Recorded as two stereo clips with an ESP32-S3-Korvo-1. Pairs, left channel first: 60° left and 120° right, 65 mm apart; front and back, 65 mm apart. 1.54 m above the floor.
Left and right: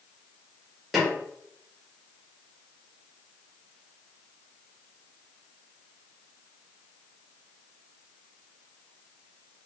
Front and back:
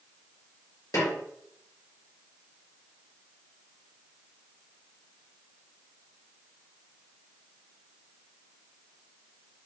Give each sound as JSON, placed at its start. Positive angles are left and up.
{"t": 0.9, "sound": "a snare drum", "azimuth_deg": -30, "distance_m": 2.0}